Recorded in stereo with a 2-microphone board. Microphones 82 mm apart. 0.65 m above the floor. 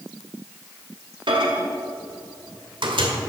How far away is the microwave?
About 1.7 m.